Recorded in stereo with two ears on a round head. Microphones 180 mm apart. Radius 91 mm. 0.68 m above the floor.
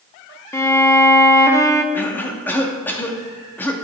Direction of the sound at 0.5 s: 15° left (ahead or behind).